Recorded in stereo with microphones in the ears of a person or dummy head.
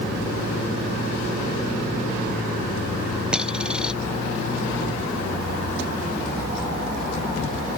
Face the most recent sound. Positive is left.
turn(degrees=-10)  # may be behind; listen again after turning